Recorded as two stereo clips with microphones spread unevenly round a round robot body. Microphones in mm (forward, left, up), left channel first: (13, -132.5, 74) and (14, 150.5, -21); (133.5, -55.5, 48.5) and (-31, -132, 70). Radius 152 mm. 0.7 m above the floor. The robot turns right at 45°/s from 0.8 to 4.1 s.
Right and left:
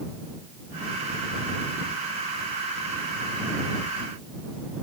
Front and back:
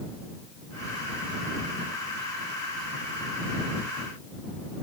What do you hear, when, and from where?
Only background noise.